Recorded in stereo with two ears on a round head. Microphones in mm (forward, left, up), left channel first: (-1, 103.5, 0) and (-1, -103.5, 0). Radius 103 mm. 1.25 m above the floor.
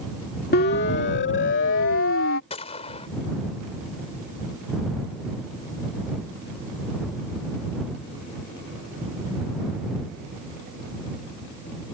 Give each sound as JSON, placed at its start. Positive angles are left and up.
{"t": 0.5, "sound": "a siren", "side_deg": 45}
{"t": 2.5, "sound": "a gunshot", "side_deg": 25}